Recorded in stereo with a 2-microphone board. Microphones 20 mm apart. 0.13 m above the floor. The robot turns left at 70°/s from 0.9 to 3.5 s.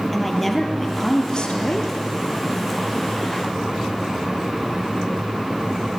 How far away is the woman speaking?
About 3 m.